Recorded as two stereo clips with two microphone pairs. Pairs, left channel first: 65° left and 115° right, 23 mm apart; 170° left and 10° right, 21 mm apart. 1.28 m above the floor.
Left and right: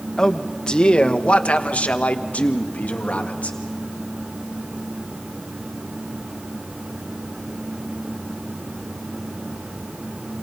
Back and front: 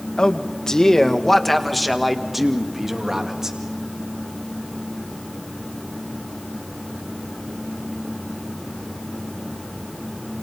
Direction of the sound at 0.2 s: 125° left.